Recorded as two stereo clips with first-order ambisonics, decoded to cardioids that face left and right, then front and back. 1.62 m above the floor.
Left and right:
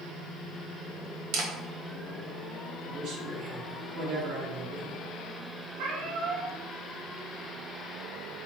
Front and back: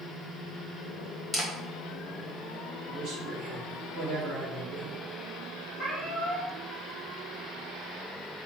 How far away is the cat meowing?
About 1.9 m.